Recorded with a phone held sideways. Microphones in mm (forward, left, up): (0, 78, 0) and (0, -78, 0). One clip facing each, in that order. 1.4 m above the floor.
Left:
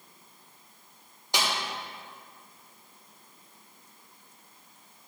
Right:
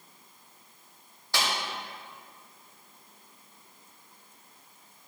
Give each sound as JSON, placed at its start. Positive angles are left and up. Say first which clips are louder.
{"t": 1.3, "sound": "a snare drum", "louder": "left 1 dB", "side_deg": 20, "distance_m": 1.6}